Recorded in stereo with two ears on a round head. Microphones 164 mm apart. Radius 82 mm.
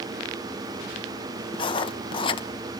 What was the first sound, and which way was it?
Writing, 25° left (ahead or behind).